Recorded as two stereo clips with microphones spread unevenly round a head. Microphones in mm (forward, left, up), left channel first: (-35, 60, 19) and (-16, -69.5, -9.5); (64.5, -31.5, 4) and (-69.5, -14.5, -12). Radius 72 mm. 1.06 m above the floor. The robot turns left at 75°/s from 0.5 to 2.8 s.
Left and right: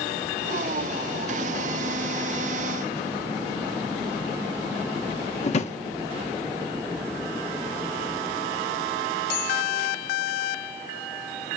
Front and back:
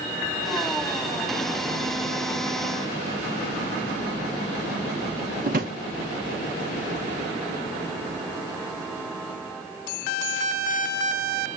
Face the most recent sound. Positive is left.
turn(degrees=135)